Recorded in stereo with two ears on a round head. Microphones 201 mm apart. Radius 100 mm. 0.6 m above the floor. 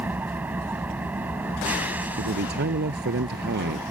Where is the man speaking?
50° right (ahead or behind).